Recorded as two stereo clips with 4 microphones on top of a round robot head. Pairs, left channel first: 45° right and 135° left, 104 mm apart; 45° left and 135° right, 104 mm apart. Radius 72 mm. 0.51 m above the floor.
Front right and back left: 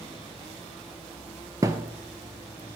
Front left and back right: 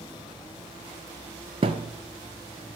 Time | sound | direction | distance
1.6 | a thud | 165° right | 0.6 m